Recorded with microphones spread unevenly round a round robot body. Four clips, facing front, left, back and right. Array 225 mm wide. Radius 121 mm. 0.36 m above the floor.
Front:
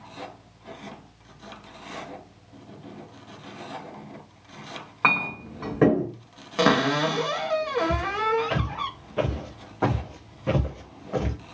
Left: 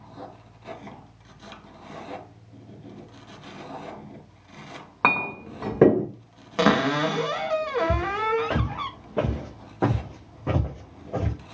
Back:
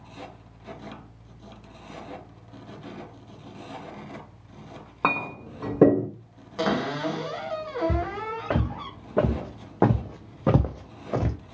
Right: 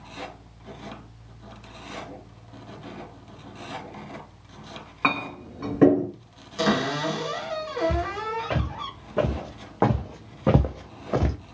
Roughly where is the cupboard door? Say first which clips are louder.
Left 3 dB, front 5 dB; ahead left.